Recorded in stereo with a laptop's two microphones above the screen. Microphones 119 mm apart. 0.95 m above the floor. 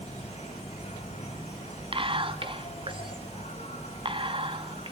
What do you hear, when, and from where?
0.0 s an insect: 75° left (ahead or behind), 5.5 m
1.9 s whispering: 50° right (ahead or behind), 2.0 m